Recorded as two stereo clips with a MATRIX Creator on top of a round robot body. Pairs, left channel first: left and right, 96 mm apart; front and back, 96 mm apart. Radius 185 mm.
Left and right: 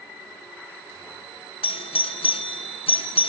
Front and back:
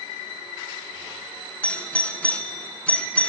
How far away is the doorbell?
About 1.2 m.